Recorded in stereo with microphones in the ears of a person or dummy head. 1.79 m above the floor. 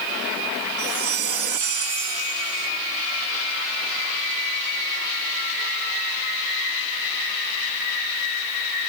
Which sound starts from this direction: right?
A chime, at 0.8 s.